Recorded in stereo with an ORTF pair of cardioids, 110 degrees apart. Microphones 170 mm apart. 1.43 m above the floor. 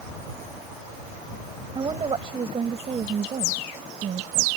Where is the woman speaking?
30° right; by 4.5 s 45° right.